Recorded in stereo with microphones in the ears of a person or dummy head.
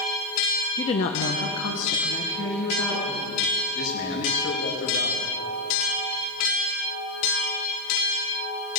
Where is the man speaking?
70° left (ahead or behind), 1.9 m.